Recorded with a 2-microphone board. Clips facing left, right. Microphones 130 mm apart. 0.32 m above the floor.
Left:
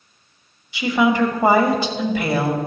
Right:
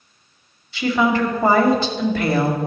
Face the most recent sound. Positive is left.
turn(degrees=15)  # may be behind; listen again after turning